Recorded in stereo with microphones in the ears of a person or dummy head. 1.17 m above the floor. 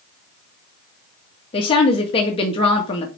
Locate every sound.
1.5 s a woman speaking: 35° left (ahead or behind), 1.7 m